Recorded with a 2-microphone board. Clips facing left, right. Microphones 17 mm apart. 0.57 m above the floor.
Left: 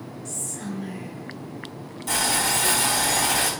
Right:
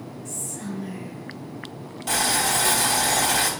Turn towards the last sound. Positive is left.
turn(degrees=-30)  # may be behind; listen again after turning